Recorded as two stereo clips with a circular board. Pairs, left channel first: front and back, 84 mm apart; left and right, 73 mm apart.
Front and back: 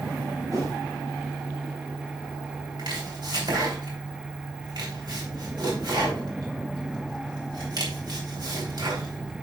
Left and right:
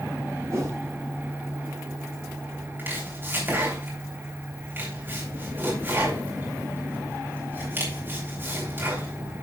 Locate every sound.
0.5 s a whoosh: 140° right, 5.5 m
2.8 s chopping: 150° right, 3 m